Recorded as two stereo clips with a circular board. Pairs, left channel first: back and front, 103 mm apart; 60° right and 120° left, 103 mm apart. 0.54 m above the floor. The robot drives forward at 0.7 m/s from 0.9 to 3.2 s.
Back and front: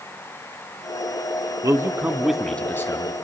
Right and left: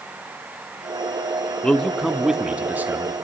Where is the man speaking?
10° left, 0.9 m; by 3.1 s 170° left, 0.9 m.